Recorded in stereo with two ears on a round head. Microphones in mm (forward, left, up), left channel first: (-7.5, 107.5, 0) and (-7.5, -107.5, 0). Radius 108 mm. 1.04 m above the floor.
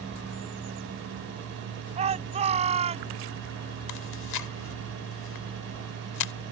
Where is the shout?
25° right (ahead or behind).